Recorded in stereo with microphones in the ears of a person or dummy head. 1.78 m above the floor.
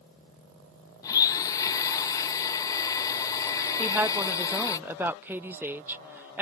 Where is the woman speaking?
10° right (ahead or behind).